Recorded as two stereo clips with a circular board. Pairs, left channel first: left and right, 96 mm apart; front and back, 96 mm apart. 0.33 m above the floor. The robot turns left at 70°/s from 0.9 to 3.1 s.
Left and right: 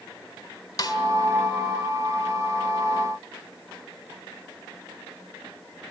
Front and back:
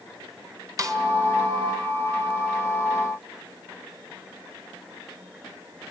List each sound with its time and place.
0.8 s a snare drum: 135° left, 1.8 m; by 1.0 s 125° left, 1.8 m